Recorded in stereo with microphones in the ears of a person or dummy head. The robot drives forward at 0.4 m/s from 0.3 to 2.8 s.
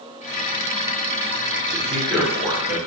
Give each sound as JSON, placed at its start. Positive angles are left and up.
{"t": 1.7, "sound": "a man speaking", "side_deg": -10, "distance_m": 1.0}